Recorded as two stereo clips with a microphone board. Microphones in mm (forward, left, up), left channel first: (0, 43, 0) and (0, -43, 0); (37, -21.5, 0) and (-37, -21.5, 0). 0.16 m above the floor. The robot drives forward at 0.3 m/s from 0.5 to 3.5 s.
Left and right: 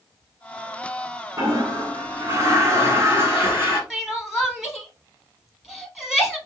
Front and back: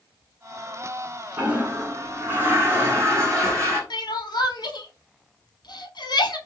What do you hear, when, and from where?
1.4 s a toilet flushing: 115° right, 1.2 m; by 3.8 s 145° right, 1.5 m
3.9 s crying: 5° right, 0.7 m